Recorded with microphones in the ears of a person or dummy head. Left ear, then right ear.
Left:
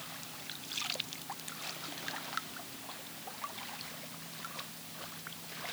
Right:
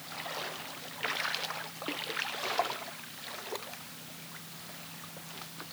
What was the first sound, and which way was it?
Only background noise.